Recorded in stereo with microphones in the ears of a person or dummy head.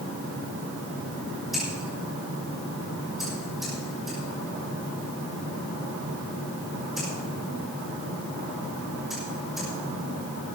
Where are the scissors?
Centre (ahead or behind), 6 m.